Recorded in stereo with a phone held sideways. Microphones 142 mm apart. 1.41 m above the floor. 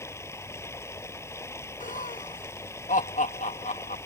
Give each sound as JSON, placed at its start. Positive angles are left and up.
{"t": 0.0, "sound": "running water", "side_deg": 20}
{"t": 1.8, "sound": "laughter", "side_deg": 75}